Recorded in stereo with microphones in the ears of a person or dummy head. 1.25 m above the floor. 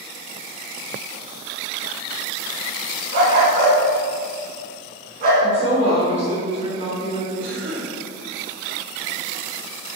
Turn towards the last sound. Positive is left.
turn(degrees=-85)